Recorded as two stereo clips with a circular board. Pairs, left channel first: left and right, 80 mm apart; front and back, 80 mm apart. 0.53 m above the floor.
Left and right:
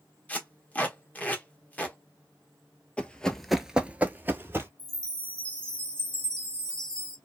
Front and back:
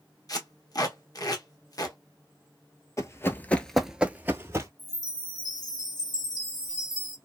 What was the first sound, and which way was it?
Tape being pulled, 25° left.